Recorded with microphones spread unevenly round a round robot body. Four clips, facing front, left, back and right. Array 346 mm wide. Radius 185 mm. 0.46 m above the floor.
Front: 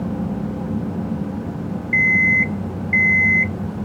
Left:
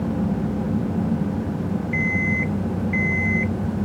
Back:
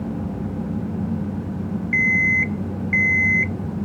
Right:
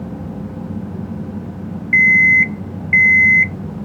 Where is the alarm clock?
150° right.